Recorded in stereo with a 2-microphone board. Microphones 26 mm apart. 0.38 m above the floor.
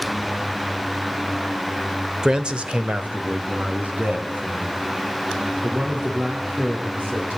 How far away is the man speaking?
About 1.1 m.